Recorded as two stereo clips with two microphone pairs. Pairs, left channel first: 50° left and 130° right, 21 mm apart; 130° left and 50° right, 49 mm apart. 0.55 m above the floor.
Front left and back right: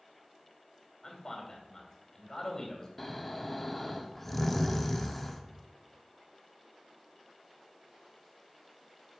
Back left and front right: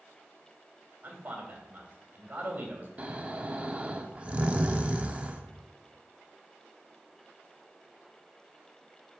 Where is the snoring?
15° right, 0.8 m.